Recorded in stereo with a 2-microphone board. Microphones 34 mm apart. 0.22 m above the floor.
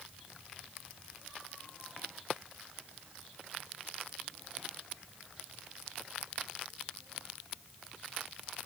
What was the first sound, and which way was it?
Only background noise.